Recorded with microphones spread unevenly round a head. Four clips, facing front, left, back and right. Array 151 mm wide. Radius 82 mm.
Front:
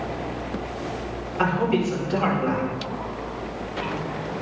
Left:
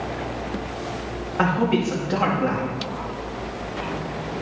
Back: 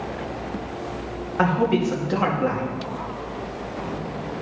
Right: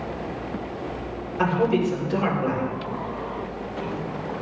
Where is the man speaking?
135° left, 2 m.